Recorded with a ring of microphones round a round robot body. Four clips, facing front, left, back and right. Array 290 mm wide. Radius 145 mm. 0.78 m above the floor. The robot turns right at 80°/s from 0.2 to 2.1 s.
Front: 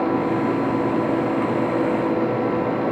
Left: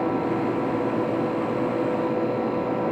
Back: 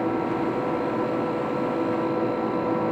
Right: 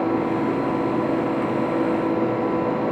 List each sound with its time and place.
Only background noise.